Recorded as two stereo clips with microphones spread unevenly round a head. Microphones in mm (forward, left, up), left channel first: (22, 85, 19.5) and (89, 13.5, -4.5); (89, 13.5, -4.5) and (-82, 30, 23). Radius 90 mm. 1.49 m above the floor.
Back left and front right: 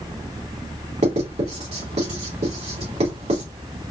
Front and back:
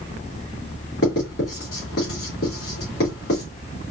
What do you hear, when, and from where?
1.0 s writing: 45° right, 2 m